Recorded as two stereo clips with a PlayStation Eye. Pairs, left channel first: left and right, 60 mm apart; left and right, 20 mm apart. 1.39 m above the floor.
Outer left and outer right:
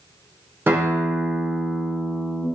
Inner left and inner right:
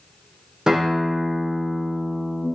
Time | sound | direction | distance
0.7 | a guitar | 35° right (ahead or behind) | 0.6 m